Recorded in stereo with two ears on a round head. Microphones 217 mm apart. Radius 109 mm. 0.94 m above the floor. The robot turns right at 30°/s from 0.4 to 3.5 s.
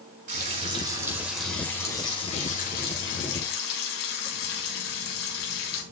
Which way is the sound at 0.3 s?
30° right.